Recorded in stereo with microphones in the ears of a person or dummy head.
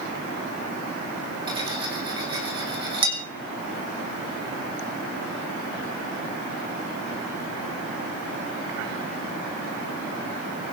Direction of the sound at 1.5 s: 25° right (ahead or behind).